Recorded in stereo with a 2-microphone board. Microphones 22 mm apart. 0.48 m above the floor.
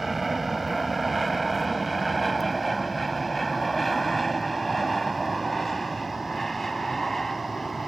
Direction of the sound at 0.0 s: 5° right (ahead or behind).